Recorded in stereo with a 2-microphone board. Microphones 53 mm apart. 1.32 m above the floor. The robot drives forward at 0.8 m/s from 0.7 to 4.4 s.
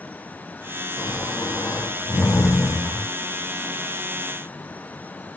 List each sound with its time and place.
1.0 s snoring: 85° left, 5 m; by 3.1 s 80° left, 5.5 m